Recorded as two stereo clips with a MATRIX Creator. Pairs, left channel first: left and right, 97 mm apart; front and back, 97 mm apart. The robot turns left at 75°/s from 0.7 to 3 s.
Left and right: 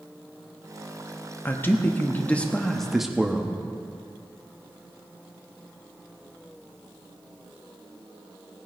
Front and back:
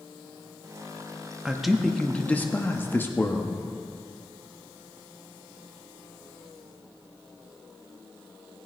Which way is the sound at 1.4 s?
110° left.